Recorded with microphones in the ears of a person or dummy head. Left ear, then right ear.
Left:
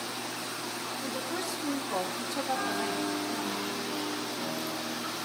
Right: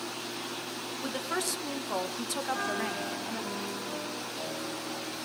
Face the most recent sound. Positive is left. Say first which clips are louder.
# left 1 dB
turn(degrees=-85)